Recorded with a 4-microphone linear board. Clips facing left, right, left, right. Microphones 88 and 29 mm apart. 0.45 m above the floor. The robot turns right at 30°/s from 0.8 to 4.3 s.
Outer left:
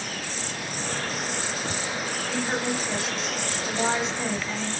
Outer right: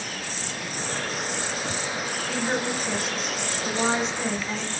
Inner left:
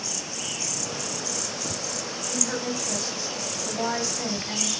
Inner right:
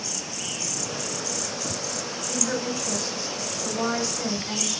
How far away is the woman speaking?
About 2 m.